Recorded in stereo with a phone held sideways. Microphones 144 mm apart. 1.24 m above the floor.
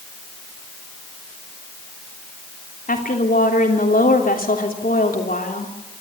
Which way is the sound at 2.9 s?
85° left.